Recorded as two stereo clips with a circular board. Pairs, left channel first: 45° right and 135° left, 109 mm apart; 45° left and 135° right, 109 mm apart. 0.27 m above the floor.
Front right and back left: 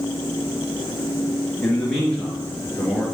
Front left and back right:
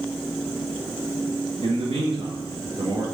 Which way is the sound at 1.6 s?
130° right.